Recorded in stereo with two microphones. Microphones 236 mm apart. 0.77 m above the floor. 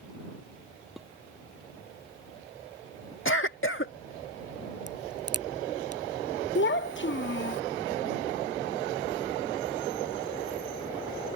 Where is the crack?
85° right.